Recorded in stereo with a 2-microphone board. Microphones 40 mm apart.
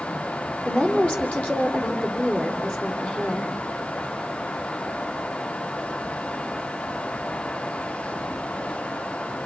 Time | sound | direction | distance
0.7 | a woman speaking | 35° left (ahead or behind) | 5.5 m